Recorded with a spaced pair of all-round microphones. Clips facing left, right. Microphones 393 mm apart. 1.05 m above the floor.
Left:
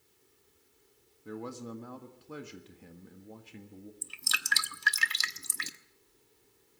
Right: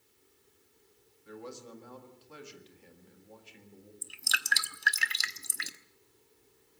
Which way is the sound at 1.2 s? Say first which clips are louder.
Left 5 dB; 75° left (ahead or behind).